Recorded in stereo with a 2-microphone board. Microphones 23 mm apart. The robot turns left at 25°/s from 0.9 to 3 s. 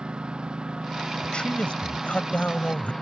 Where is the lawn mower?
135° right; by 3.0 s 170° left.